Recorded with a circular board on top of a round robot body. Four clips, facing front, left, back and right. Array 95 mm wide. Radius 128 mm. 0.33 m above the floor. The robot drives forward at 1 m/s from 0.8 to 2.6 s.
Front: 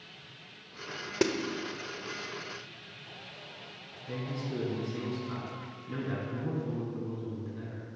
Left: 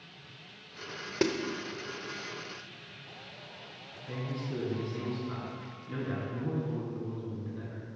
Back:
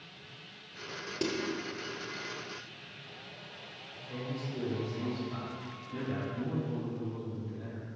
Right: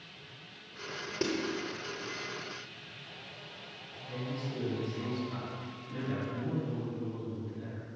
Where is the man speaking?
45° left, 5.5 m.